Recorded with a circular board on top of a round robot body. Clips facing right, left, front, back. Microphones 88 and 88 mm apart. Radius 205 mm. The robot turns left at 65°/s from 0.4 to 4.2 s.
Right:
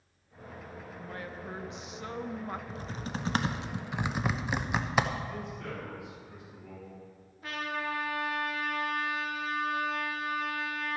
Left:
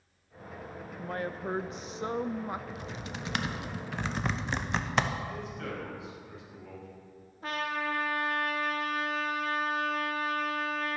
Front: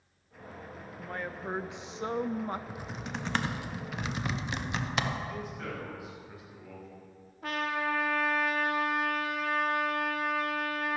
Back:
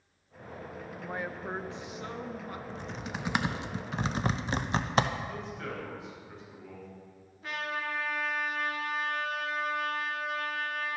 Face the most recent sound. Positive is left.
turn(degrees=35)